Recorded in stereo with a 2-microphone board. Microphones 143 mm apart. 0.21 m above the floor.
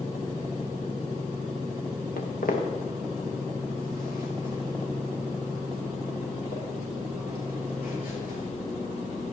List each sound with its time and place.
2.2 s footsteps: 85° left, 2 m; by 8.4 s 90° left, 7.5 m